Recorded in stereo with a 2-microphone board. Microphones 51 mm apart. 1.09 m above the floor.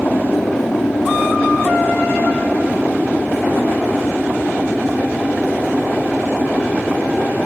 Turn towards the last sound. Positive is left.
turn(degrees=25)  # may be behind; listen again after turning